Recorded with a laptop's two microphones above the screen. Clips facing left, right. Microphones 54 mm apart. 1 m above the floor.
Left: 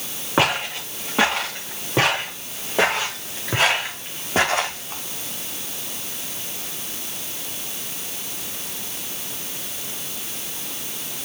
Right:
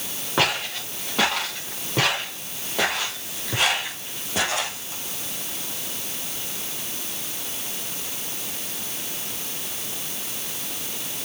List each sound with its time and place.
0.4 s footsteps: 25° left (ahead or behind), 6 m; by 5.0 s 45° left (ahead or behind), 3 m